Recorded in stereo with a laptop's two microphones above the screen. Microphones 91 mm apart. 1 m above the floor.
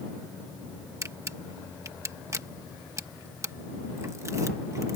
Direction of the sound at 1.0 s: 30° right (ahead or behind).